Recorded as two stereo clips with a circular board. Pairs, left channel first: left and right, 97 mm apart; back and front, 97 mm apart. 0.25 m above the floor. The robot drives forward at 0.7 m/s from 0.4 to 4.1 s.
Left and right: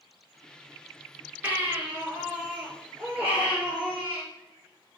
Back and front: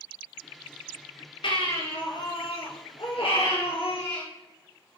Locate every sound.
1.4 s a baby crying: 160° right, 3 m; by 4.2 s 165° right, 4.5 m